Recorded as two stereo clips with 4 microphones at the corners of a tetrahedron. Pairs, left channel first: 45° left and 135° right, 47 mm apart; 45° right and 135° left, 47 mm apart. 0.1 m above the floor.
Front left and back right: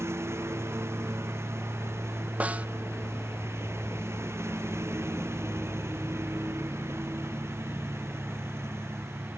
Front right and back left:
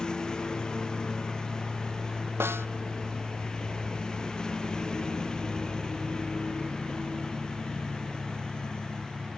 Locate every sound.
0.0 s a lawn mower: 120° right
2.4 s a snare drum: 165° left